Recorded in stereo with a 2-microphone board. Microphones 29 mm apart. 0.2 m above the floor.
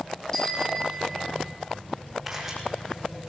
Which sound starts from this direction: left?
A bicycle bell, at 0.3 s.